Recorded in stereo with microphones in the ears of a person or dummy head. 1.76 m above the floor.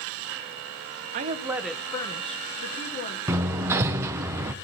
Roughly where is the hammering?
Centre.